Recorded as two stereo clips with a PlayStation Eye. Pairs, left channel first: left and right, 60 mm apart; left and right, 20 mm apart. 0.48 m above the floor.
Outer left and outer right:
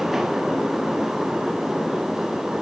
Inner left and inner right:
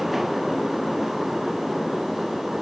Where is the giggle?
I don't hear a giggle.